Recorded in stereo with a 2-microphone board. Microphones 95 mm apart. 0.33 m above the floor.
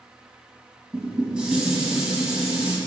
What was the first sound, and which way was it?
Dishes clattering, 10° right (ahead or behind).